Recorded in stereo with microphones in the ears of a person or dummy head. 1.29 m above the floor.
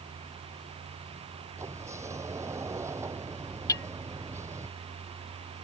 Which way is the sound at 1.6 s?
15° right (ahead or behind).